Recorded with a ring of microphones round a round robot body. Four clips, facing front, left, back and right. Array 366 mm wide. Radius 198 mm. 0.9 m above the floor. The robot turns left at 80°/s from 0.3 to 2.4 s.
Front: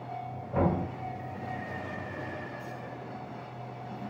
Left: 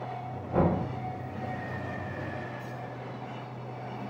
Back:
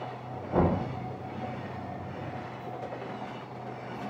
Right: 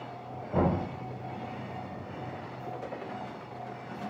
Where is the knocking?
170° left, 1.7 m; by 0.8 s 145° left, 1.7 m.